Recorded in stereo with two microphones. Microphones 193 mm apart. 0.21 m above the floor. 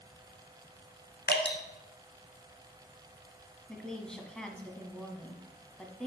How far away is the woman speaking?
About 1.3 m.